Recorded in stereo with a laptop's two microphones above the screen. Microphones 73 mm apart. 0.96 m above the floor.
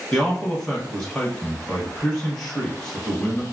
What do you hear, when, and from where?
0.1 s a man speaking: 5° left (ahead or behind), 1.0 m